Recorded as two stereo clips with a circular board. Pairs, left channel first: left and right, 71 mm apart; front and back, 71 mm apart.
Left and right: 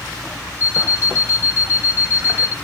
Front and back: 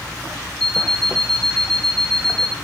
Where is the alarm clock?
80° left, 1.2 m.